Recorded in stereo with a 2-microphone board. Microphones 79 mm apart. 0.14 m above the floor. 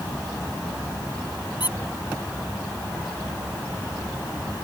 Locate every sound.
1.6 s a squeak: 70° left (ahead or behind)